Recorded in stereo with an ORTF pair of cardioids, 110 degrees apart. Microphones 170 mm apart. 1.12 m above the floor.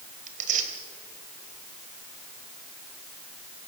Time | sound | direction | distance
0.3 | tearing paper | 50° right | 3 m